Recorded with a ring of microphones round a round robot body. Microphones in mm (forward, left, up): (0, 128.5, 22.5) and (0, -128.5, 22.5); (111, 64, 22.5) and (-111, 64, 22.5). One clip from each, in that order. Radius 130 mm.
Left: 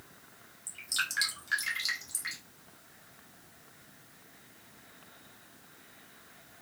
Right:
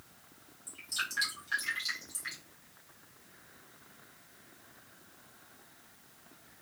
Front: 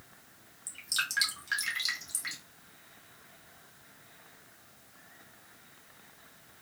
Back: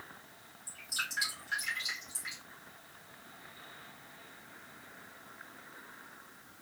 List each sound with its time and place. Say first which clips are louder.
0.7 s dripping: left 3 dB, front 4 dB; 20° left, 1.4 m